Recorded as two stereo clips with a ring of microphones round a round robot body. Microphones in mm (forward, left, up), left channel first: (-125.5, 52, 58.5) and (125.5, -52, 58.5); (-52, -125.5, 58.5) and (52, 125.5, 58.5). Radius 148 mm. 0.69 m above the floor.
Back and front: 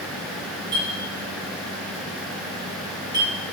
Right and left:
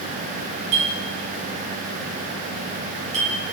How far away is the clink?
About 2.5 m.